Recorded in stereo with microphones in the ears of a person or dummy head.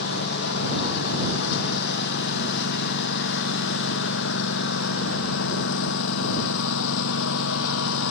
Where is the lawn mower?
60° left (ahead or behind); by 8.1 s 80° left.